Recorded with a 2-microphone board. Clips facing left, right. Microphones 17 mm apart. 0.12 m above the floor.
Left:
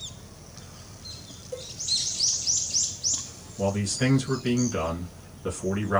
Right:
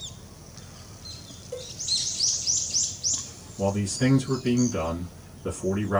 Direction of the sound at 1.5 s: 15° right (ahead or behind).